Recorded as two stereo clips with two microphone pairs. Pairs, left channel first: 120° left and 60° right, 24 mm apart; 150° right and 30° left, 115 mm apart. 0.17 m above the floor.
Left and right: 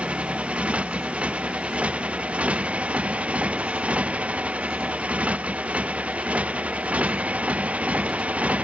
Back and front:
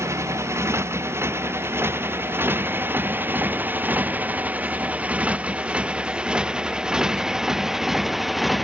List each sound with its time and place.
0.0 s a motorcycle: 35° right; by 8.7 s 55° right